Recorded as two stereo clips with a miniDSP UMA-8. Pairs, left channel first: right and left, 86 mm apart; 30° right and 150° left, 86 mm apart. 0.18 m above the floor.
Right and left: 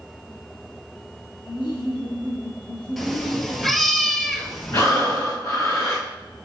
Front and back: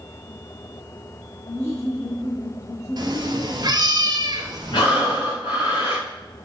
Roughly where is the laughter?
Right.